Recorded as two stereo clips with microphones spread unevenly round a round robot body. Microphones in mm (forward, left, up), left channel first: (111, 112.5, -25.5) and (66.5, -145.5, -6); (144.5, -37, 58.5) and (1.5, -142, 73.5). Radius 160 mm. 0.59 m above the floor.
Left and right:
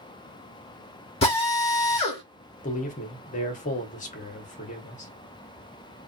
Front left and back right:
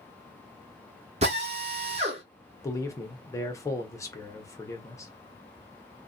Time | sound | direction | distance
1.2 | a drill | 150° left | 0.7 m
2.6 | a man speaking | 85° left | 0.7 m